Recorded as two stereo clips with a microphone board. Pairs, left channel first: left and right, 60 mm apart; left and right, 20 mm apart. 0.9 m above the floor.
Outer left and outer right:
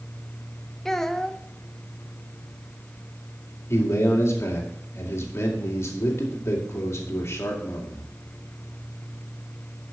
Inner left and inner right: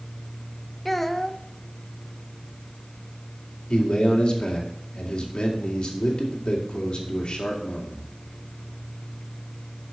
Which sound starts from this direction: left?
A man speaking, at 3.7 s.